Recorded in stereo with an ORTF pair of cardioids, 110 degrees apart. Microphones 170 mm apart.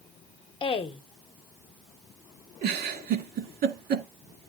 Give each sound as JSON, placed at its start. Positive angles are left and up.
{"t": 0.6, "sound": "a woman speaking", "azimuth_deg": 30, "distance_m": 1.0}
{"t": 2.6, "sound": "a giggle", "azimuth_deg": -65, "distance_m": 2.0}